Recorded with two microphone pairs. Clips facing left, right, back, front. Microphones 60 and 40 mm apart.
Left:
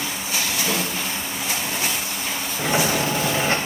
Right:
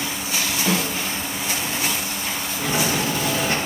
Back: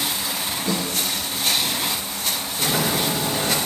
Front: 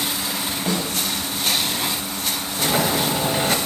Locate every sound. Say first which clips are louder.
0.7 s a snare drum: right 4 dB, front 1 dB; 35° right, 1.5 m
2.6 s a sliding door: left 2 dB, front 2 dB; 50° left, 0.8 m